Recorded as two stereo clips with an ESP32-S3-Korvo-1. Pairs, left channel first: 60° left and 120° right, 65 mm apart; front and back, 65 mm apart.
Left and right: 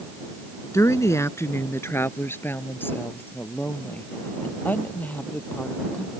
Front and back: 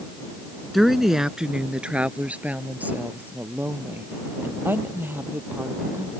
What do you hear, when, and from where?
0.7 s a woman speaking: 90° left; by 6.1 s 125° left